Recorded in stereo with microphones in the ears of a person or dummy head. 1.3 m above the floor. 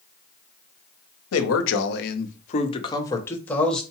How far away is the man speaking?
About 1.0 m.